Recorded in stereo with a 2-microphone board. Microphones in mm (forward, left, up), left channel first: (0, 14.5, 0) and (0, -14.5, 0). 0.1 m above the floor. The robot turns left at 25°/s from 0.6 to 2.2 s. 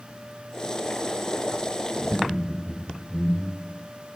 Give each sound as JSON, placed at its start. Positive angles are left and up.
{"t": 1.9, "sound": "laughter", "side_deg": 30, "distance_m": 2.5}